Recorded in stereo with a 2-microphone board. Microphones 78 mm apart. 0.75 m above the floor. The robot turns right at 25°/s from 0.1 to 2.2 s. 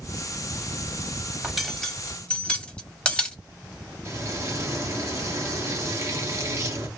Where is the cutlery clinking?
5° right (ahead or behind), 1.0 m; by 3.4 s 15° left (ahead or behind), 1.0 m.